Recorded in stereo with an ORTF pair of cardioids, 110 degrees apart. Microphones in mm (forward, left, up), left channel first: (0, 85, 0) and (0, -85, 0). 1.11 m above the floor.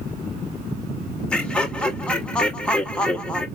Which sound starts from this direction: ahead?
Laughter, at 1.3 s.